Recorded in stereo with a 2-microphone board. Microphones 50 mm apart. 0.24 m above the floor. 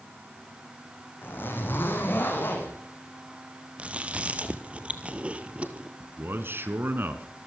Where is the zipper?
45° left (ahead or behind), 5.5 m.